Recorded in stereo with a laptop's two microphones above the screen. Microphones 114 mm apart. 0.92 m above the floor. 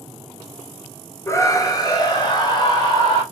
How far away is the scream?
About 0.7 m.